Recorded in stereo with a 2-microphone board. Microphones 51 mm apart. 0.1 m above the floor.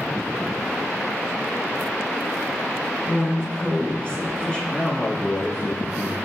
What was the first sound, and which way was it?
A woman speaking, 20° left (ahead or behind).